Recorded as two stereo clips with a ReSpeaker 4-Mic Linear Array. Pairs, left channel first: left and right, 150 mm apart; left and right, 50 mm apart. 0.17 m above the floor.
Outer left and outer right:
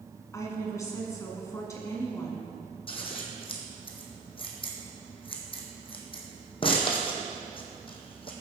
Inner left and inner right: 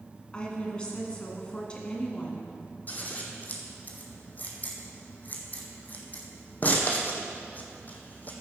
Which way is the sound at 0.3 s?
20° left (ahead or behind).